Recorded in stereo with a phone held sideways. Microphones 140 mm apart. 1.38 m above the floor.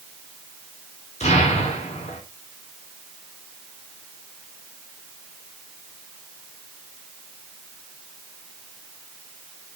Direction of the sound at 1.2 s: 55° left (ahead or behind).